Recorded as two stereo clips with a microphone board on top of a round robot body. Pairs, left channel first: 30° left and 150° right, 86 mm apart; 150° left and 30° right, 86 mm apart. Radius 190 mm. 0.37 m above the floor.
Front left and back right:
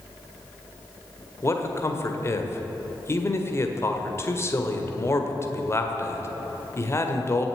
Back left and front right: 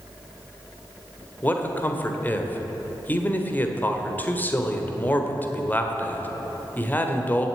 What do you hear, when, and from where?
1.4 s a man speaking: 85° left, 2 m